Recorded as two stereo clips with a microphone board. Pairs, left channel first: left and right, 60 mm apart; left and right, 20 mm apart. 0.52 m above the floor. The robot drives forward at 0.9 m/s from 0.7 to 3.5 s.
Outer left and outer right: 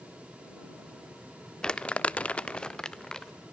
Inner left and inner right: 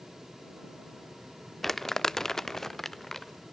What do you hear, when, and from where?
1.6 s crumpling: 15° left (ahead or behind), 0.6 m; by 3.3 s 10° left (ahead or behind), 1.2 m